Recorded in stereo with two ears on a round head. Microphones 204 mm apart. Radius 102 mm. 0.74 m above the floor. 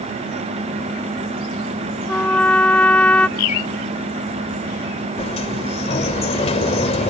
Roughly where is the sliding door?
Left.